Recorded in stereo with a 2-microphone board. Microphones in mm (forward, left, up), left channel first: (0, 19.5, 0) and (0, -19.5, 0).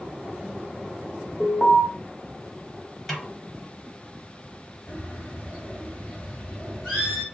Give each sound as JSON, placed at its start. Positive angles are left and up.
{"t": 1.4, "sound": "an alarm", "side_deg": 10, "distance_m": 1.5}
{"t": 3.1, "sound": "a snare drum", "side_deg": 0, "distance_m": 0.8}
{"t": 4.9, "sound": "a bird", "side_deg": 0, "distance_m": 1.7}